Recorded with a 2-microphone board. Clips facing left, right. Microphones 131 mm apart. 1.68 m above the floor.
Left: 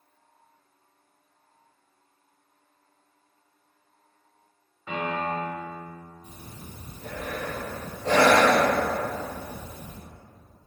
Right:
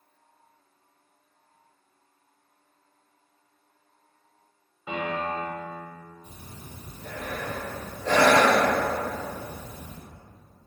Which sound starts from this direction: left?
Breathing, at 6.2 s.